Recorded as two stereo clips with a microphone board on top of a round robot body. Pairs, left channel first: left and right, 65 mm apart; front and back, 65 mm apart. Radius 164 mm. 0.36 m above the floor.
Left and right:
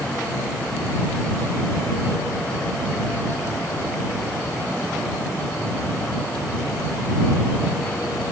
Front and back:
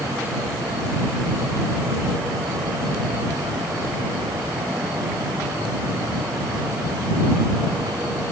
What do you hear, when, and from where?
Only background noise.